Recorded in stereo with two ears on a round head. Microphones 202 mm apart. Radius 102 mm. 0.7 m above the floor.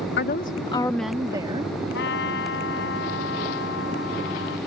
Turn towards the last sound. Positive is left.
turn(degrees=50)  # may be behind; listen again after turning